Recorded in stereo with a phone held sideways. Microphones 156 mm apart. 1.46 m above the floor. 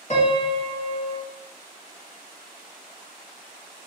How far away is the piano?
About 0.9 m.